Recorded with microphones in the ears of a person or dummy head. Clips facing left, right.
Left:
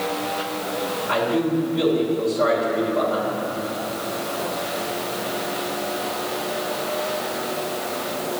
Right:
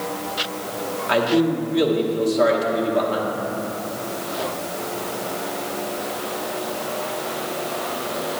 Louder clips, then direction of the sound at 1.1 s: Right 3 dB; 55° right (ahead or behind).